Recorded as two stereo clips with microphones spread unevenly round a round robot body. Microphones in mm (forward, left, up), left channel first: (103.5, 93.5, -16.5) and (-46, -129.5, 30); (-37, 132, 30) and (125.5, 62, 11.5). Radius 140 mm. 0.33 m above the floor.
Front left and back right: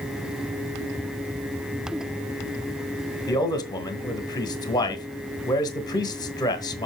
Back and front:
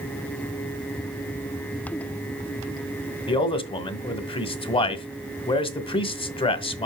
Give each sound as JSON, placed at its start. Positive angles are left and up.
{"t": 3.3, "sound": "a man speaking", "azimuth_deg": 110, "distance_m": 1.1}